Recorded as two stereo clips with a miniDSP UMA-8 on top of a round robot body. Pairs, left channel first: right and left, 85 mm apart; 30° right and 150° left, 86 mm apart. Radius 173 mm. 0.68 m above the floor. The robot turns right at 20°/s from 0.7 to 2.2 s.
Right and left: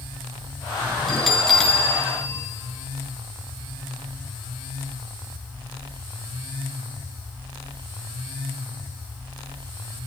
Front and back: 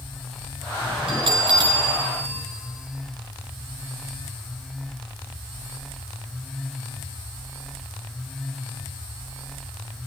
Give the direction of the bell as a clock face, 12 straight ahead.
6 o'clock.